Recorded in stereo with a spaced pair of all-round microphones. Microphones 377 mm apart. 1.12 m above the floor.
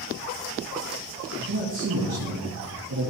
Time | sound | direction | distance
1.4 | a man speaking | 70° right (ahead or behind) | 1.6 m